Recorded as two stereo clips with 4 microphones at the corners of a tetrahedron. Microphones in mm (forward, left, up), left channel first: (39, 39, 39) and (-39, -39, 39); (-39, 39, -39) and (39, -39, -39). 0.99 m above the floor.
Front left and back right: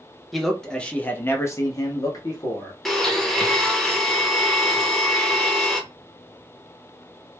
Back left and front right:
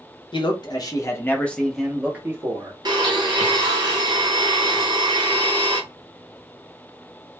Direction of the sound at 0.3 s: 135° left.